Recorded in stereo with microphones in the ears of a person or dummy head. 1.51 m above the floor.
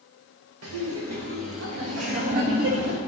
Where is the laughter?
85° right, 1.5 m; by 3.0 s 80° right, 3.5 m.